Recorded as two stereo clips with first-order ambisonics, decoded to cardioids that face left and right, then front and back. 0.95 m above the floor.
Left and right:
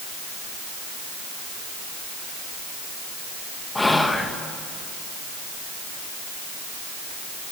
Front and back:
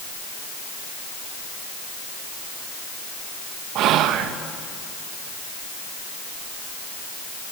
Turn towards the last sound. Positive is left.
turn(degrees=170)